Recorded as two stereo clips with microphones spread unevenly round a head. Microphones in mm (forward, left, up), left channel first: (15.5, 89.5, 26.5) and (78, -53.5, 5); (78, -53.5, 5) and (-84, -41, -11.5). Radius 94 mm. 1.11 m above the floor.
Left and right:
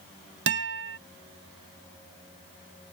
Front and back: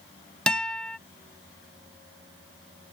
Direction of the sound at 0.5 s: 90° right.